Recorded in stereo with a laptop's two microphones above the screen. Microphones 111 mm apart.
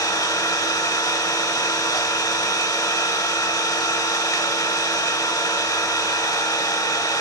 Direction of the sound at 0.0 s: 30° left (ahead or behind).